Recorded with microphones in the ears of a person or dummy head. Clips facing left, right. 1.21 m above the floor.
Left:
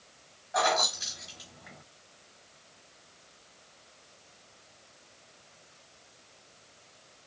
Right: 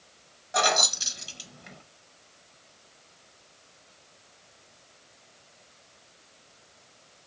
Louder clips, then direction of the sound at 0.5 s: Right 1 dB; 40° right (ahead or behind).